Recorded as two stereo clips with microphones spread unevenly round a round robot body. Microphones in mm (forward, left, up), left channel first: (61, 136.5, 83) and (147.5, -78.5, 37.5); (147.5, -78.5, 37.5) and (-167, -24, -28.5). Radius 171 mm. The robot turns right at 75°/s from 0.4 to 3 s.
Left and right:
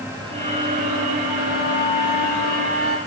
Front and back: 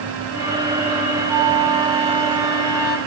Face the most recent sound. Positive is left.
turn(degrees=-95)